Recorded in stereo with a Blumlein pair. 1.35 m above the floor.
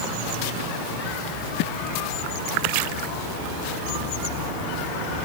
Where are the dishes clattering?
I don't hear dishes clattering.